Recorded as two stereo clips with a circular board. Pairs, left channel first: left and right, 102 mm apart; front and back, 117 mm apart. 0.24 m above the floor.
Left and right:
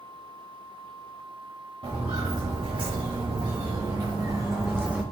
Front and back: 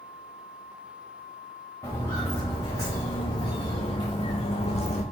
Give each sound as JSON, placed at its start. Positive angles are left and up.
{"t": 1.8, "sound": "footsteps", "azimuth_deg": -65, "distance_m": 2.0}